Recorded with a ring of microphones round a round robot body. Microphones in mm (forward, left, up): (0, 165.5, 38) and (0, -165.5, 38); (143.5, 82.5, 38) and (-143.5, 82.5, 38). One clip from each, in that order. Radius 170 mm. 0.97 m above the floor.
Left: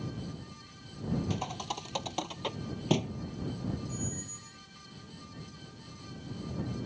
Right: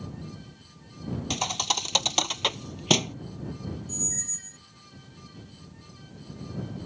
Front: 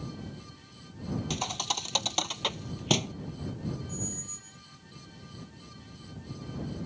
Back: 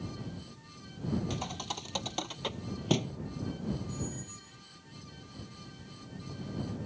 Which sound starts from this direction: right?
A squeak, at 3.9 s.